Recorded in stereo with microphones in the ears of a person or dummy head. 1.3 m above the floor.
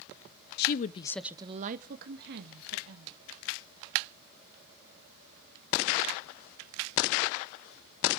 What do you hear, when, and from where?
0.6 s a woman speaking: 60° left (ahead or behind), 0.7 m; by 3.2 s 65° right (ahead or behind), 1.9 m